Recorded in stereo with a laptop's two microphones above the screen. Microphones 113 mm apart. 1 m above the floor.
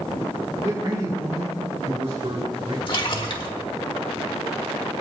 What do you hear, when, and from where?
0.6 s a man speaking: 35° right (ahead or behind), 2.5 m; by 2.8 s 55° right (ahead or behind), 4 m
2.9 s a splash: 45° left (ahead or behind), 1.5 m